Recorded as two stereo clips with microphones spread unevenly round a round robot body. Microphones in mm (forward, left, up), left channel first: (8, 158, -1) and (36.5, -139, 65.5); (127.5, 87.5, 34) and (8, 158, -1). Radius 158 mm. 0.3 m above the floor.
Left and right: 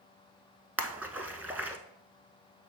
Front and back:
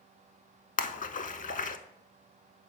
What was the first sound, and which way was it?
A splash, straight ahead.